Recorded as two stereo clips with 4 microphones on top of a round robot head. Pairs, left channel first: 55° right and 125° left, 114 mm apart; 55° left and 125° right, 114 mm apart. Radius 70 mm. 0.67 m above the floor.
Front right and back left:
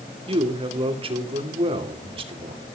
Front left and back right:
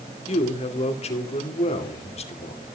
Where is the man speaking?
80° left, 2.5 m.